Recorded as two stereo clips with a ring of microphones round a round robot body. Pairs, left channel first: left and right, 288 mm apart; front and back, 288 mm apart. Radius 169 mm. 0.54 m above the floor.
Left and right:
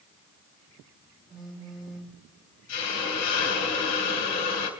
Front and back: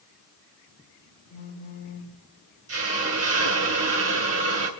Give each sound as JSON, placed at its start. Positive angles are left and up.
{"t": 1.3, "sound": "a phone buzzing", "azimuth_deg": 0, "distance_m": 3.0}
{"t": 2.7, "sound": "a hiss", "azimuth_deg": 145, "distance_m": 3.0}